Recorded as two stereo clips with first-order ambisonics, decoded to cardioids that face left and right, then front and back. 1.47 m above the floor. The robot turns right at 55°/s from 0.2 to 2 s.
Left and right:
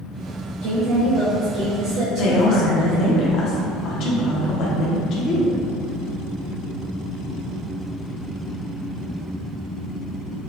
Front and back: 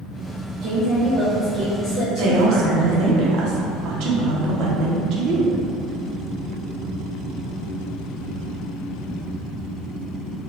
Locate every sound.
0.6 s a woman speaking: 155° right, 1.0 m; by 3.2 s 80° right, 1.0 m
2.2 s a woman speaking: 140° left, 0.7 m